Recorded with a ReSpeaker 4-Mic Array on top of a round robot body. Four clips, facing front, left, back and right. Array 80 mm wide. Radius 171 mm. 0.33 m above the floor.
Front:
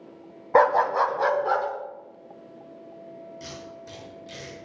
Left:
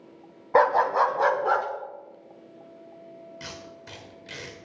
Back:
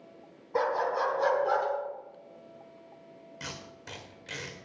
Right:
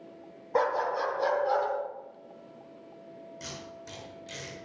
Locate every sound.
0.6 s a dog barking: 30° left, 1.0 m; by 1.7 s 70° left, 1.9 m
3.4 s tape being pulled: 155° left, 3.5 m